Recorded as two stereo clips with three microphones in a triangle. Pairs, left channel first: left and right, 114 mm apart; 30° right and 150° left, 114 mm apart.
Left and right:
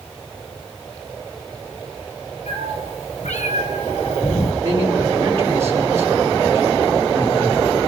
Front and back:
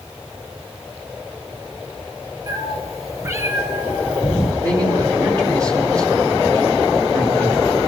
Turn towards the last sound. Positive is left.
turn(degrees=-155)